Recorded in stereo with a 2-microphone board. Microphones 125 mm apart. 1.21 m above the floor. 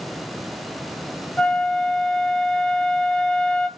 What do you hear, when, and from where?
1.4 s a flute: 10° left (ahead or behind), 0.6 m